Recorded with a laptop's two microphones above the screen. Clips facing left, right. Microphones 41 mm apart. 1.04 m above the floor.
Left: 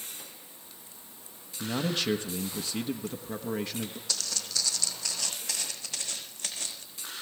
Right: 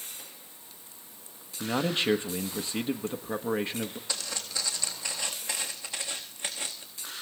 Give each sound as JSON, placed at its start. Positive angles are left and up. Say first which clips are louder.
{"t": 1.6, "sound": "a man speaking", "louder": "right 2 dB", "side_deg": -25, "distance_m": 1.1}
{"t": 4.1, "sound": "footsteps", "louder": "even", "side_deg": -20, "distance_m": 3.0}